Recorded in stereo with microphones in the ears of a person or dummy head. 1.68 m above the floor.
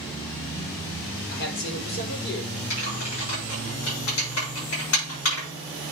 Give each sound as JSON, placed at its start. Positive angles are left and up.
{"t": 1.3, "sound": "a man speaking", "side_deg": 65, "distance_m": 5.0}
{"t": 2.7, "sound": "typing on a keyboard", "side_deg": 80, "distance_m": 7.0}